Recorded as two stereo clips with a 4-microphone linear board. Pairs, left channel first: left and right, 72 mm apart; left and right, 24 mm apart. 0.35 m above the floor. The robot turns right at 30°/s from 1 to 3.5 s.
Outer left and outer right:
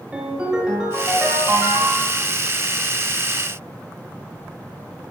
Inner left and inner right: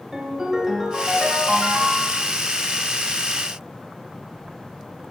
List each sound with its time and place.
0.1 s a ringtone: 165° right, 0.8 m; by 2.2 s 125° right, 0.8 m